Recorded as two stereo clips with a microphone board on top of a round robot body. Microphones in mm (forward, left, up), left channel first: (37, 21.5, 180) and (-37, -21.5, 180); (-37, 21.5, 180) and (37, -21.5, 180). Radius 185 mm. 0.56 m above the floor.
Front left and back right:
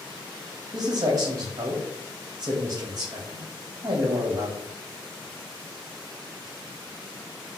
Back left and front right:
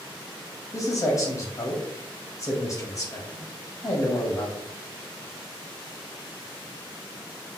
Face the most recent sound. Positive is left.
turn(degrees=180)